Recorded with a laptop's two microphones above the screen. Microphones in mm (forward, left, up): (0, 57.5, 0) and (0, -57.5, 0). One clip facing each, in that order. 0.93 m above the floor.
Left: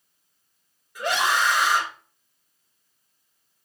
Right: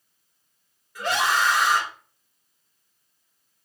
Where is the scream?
15° left (ahead or behind), 2 m.